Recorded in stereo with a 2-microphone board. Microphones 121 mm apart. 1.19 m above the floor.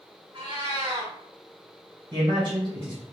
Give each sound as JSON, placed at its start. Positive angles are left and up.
{"t": 0.3, "sound": "a cat meowing", "side_deg": -40, "distance_m": 0.8}
{"t": 2.1, "sound": "a man speaking", "side_deg": -45, "distance_m": 1.2}